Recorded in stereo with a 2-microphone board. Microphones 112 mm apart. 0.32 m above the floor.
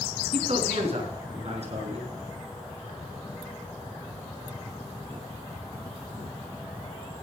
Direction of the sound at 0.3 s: 60° right (ahead or behind).